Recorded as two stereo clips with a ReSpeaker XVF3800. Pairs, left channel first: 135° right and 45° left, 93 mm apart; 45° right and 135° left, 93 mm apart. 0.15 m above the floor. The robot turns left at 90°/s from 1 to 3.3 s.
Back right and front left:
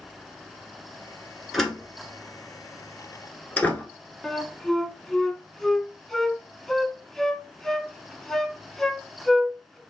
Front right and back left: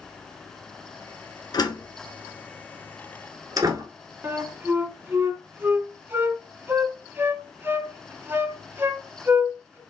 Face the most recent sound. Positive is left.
turn(degrees=145)